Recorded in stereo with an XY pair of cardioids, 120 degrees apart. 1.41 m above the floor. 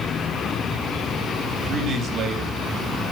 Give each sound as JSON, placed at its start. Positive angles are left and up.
{"t": 1.7, "sound": "a man speaking", "azimuth_deg": -45, "distance_m": 3.5}